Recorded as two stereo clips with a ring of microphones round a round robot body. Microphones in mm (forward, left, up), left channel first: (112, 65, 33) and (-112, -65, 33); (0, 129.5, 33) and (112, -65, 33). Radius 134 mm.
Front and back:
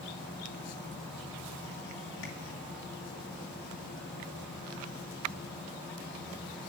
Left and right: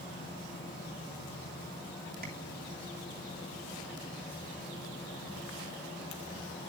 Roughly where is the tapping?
Ahead.